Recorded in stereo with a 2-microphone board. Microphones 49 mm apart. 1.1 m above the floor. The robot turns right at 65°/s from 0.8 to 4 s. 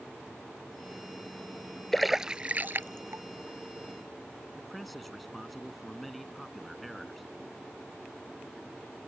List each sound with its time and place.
1.9 s a splash: 5° left (ahead or behind); by 3.2 s 70° right (ahead or behind)
4.5 s a man speaking: centre (ahead or behind)